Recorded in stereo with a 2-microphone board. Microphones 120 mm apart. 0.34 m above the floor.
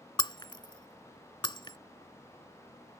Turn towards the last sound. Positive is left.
turn(degrees=40)  # may be behind; listen again after turning